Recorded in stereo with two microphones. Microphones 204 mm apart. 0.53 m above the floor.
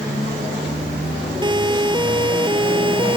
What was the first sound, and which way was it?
A siren, 20° right (ahead or behind).